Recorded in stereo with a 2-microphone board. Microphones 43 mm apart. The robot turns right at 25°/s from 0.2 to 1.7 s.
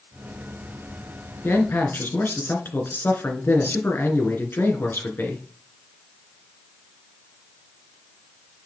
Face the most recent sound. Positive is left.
turn(degrees=50)  # may be behind; listen again after turning